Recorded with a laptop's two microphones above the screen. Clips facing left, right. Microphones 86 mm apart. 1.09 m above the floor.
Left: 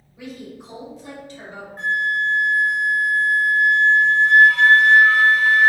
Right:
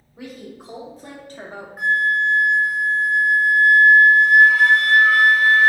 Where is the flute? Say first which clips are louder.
Right 3 dB; 10° right (ahead or behind), 0.6 m.